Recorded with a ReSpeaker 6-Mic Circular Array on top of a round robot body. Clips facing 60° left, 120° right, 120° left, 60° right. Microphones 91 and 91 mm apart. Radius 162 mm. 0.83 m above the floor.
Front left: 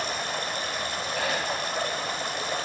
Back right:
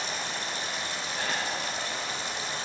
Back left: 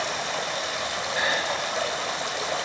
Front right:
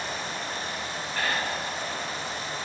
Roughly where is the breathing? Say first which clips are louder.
Front left 4 dB, back left 2 dB; ahead left.